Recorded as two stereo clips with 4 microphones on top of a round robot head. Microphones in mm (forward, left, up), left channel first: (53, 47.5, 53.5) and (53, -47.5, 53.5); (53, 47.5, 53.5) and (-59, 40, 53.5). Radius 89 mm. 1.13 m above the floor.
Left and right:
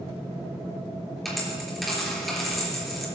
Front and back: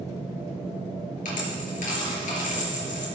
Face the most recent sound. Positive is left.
turn(degrees=0)